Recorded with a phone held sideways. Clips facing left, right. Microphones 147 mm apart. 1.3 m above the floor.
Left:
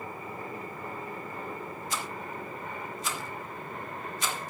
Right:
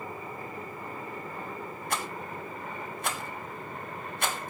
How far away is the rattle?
About 2.5 m.